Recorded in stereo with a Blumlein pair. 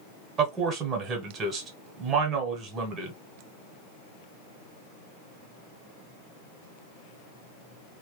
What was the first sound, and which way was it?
A man speaking, 30° right.